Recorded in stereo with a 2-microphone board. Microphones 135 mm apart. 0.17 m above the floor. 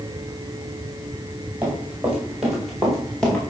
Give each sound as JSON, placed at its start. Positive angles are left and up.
{"t": 1.6, "sound": "running footsteps", "side_deg": -15, "distance_m": 7.5}